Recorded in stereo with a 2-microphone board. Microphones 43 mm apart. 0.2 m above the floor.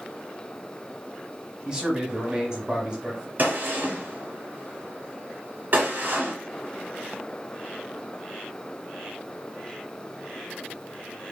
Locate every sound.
1.6 s a man speaking: 20° right (ahead or behind), 1.1 m
3.4 s a gunshot: 45° right (ahead or behind), 1.1 m